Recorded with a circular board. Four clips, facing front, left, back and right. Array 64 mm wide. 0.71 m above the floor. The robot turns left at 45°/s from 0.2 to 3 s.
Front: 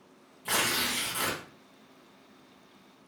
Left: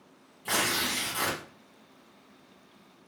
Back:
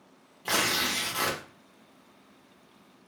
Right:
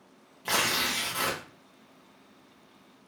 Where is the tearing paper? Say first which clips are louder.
Right 1 dB, back 2 dB; 140° right, 1.1 m; by 1.4 s straight behind, 1.1 m.